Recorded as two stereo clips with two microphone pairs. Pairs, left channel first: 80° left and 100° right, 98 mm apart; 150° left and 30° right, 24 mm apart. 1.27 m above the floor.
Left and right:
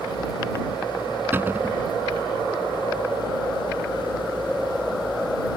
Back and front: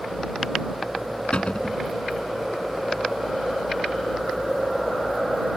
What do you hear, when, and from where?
1.3 s a cupboard door: 170° right